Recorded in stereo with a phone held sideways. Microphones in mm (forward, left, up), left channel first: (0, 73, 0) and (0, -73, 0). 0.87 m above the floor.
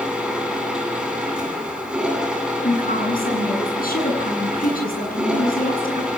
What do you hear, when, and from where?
0.0 s a machine running: 5° right (ahead or behind), 9.5 m
2.6 s a woman speaking: 85° left, 8.5 m